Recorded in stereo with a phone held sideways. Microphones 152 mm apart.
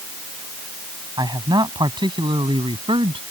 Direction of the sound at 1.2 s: 25° right (ahead or behind).